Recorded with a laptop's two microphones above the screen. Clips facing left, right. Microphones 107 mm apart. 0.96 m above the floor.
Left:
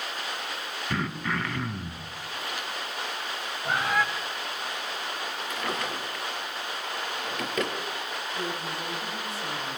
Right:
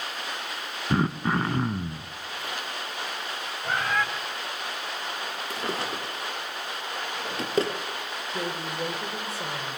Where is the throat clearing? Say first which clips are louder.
Right 6 dB; 30° right (ahead or behind), 1.2 m.